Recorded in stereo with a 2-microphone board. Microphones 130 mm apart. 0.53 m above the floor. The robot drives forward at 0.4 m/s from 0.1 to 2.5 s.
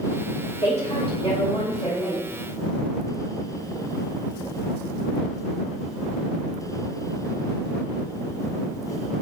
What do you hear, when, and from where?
0.6 s a woman speaking: 55° left (ahead or behind), 2 m; by 2.2 s 45° left (ahead or behind), 2.5 m